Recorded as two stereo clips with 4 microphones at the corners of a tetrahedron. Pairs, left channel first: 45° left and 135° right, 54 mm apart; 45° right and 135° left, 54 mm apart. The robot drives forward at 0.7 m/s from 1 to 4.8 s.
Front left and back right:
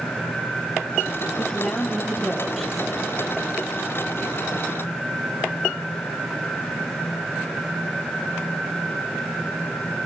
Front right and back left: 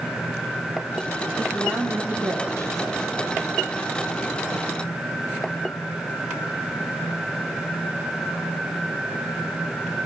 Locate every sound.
1.4 s a woman speaking: 125° left, 3 m; by 3.1 s 140° left, 4 m